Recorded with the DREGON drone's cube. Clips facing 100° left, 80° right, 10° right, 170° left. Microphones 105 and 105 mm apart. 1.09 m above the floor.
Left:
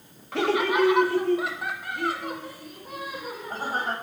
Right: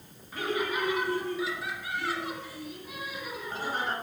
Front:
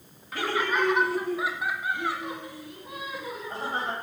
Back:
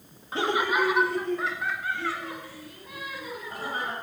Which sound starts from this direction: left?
Laughter, at 0.3 s.